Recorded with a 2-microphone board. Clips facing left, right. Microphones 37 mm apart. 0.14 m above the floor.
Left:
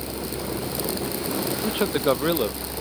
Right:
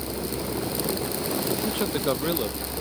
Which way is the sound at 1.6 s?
15° left (ahead or behind).